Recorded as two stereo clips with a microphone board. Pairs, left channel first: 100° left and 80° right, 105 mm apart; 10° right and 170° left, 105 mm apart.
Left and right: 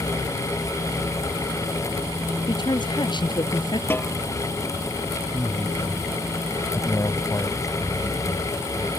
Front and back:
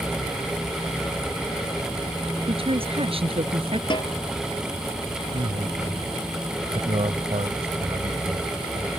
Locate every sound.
2.5 s a woman speaking: 145° left
3.9 s a snare drum: 30° left
5.3 s a man speaking: 155° left